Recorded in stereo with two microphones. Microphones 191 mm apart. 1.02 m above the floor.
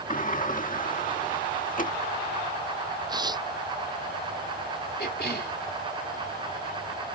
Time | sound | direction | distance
0.1 | a sliding door | 45° left (ahead or behind) | ?
3.1 | tearing paper | 20° right (ahead or behind) | ?
5.0 | a cough | 55° left (ahead or behind) | ?